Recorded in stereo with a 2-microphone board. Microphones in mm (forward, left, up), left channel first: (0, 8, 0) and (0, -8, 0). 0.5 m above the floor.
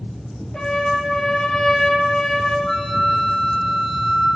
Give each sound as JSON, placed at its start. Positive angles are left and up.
{"t": 0.5, "sound": "a trumpet", "side_deg": 50, "distance_m": 2.5}
{"t": 2.7, "sound": "a flute", "side_deg": 80, "distance_m": 6.0}